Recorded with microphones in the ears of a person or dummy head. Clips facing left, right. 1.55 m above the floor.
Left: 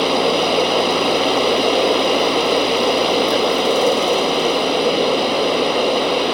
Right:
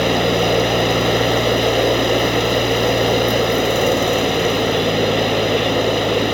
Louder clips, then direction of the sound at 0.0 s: Even; 20° right (ahead or behind).